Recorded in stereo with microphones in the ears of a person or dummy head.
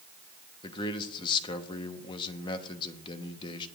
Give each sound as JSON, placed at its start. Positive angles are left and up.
{"t": 0.6, "sound": "a man speaking", "side_deg": 25, "distance_m": 1.0}